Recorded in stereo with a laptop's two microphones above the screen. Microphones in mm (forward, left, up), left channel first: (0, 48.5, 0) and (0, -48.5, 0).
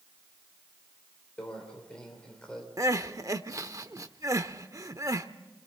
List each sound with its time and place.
1.4 s a microwave: 10° left (ahead or behind), 3 m
2.8 s crying: 40° right (ahead or behind), 0.8 m